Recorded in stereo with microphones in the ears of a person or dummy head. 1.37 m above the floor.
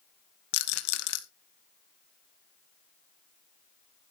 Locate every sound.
0.5 s a rattle: 65° left (ahead or behind), 1.7 m